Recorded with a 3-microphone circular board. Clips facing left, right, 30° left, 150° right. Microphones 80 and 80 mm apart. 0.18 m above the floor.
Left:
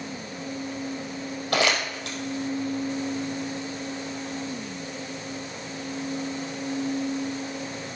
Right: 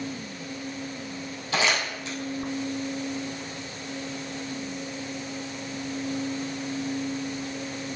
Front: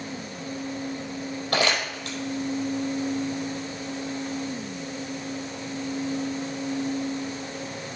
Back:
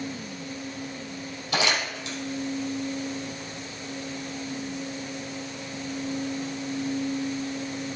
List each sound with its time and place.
1.5 s crumpling: 60° left, 4 m